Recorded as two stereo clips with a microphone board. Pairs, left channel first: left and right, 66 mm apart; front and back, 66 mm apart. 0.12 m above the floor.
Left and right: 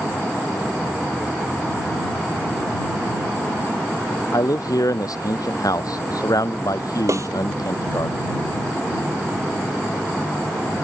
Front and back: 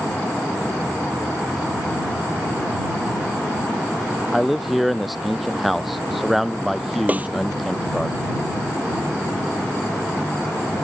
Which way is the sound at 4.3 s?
90° left.